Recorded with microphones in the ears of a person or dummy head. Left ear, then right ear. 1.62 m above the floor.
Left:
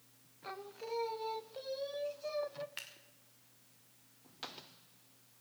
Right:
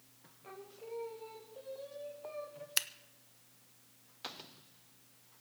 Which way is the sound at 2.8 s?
60° right (ahead or behind).